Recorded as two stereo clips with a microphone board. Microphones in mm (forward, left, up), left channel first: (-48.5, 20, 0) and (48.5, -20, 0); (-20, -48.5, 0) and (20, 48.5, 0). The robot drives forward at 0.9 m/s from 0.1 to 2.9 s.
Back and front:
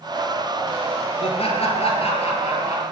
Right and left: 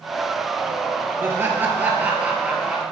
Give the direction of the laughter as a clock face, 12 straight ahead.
7 o'clock.